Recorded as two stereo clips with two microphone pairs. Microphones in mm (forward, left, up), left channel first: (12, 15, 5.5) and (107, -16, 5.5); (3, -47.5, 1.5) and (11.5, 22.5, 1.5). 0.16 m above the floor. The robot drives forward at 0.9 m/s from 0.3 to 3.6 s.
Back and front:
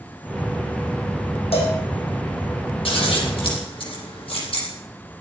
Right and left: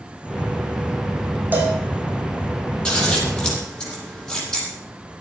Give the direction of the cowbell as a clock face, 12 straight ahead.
7 o'clock.